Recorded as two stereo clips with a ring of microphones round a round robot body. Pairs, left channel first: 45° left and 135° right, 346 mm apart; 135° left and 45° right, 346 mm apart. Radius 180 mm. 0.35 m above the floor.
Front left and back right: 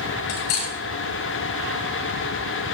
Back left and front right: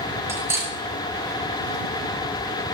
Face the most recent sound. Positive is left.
turn(degrees=40)